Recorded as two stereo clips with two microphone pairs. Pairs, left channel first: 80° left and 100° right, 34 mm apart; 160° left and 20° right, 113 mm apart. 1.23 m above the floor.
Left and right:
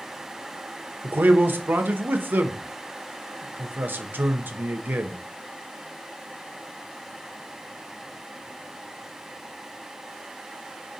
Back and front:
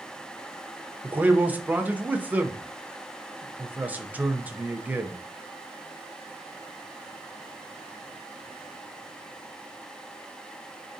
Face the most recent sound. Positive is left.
turn(degrees=-100)